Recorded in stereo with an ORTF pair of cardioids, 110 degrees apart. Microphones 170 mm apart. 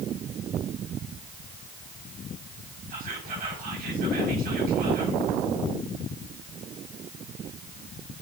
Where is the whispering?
60° right, 4 m.